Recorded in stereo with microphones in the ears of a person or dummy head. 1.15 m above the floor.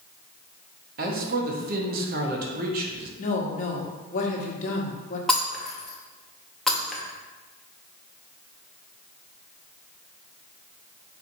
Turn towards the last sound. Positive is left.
turn(degrees=5)  # may be behind; listen again after turning